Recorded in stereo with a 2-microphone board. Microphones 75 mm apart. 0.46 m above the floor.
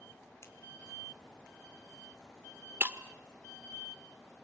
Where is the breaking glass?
30° right (ahead or behind), 0.8 m.